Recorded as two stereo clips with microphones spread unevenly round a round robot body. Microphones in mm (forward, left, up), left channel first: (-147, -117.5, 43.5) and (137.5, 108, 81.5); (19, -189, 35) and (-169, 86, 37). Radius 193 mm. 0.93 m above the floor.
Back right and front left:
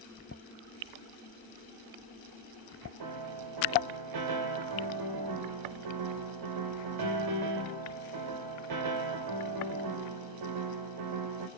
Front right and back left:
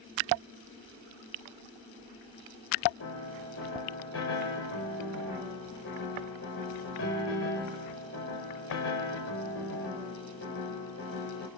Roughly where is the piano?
Ahead.